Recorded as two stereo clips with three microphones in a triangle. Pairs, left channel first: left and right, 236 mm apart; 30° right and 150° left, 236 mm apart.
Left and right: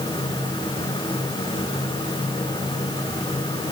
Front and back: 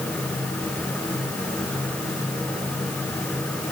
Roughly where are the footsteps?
I don't hear footsteps.